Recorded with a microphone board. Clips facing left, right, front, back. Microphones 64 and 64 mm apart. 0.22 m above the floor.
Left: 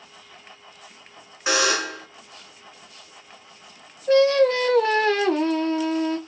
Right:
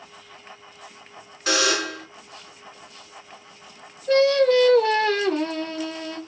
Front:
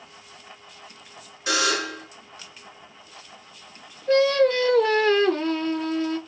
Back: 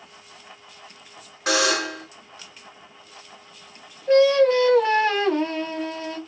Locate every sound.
1.5 s a buzzer: 160° left, 2.0 m
4.1 s singing: 130° left, 1.3 m